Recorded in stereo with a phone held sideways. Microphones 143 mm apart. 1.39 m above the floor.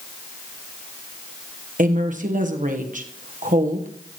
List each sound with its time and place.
1.8 s a woman speaking: 65° right (ahead or behind), 1.2 m